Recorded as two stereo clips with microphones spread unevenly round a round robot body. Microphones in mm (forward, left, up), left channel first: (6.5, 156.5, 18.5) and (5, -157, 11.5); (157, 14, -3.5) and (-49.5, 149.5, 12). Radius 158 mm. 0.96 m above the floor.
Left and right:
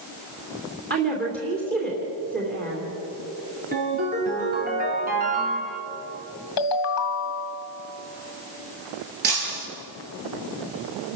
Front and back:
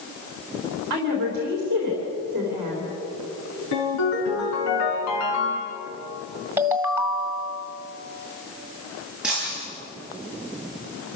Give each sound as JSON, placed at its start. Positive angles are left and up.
{"t": 0.9, "sound": "a woman speaking", "azimuth_deg": -155, "distance_m": 3.5}
{"t": 3.7, "sound": "a ringtone", "azimuth_deg": -25, "distance_m": 6.0}
{"t": 6.6, "sound": "a ringtone", "azimuth_deg": 65, "distance_m": 1.9}
{"t": 9.2, "sound": "breaking glass", "azimuth_deg": -125, "distance_m": 5.5}